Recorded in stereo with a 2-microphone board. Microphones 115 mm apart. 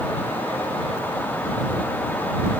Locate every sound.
Only background noise.